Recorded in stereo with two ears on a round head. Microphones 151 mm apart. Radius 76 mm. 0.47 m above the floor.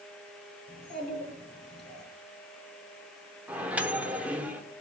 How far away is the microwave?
About 0.9 m.